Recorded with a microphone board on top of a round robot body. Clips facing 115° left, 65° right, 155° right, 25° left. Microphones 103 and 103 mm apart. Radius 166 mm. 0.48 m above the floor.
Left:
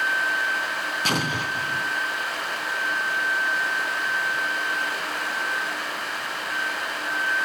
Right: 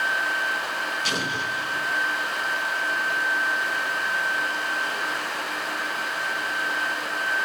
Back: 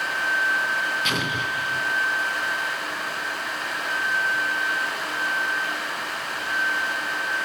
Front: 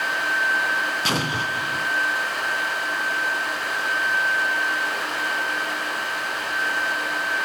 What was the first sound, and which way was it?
An explosion, 75° left.